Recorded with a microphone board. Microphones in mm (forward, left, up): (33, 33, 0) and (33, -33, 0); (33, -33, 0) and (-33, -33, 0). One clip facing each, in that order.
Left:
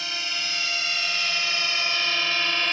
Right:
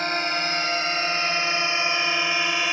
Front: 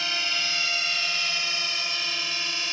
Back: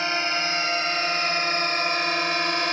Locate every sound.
0.0 s a drone: 125° right; by 2.7 s 170° right